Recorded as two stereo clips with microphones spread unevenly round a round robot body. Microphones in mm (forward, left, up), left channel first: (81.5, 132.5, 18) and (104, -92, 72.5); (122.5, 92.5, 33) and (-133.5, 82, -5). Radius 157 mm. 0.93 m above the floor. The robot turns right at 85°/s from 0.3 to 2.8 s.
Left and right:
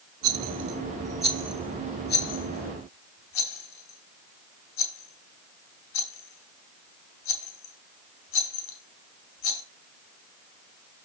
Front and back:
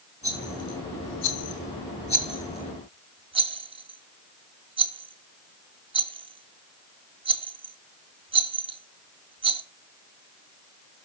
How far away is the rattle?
About 2 m.